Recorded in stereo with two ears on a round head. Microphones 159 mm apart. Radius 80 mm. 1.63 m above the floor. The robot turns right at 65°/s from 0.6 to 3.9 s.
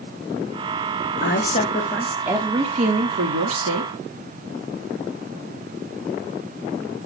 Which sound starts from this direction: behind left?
A woman speaking, at 1.2 s.